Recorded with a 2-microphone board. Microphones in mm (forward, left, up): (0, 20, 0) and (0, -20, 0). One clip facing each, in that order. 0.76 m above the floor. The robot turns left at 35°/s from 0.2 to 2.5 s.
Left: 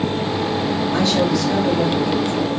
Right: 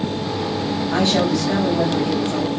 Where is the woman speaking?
55° right, 5.5 m; by 2.5 s 110° right, 5.5 m.